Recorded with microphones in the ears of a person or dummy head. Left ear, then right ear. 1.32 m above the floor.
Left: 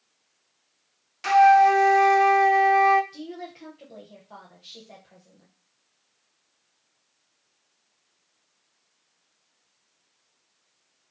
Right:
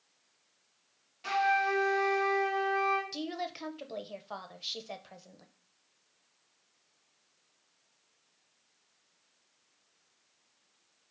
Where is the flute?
60° left (ahead or behind), 0.5 m.